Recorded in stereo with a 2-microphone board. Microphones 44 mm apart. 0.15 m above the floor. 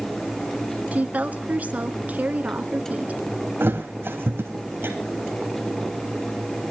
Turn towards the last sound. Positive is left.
turn(degrees=-50)  # may be behind; listen again after turning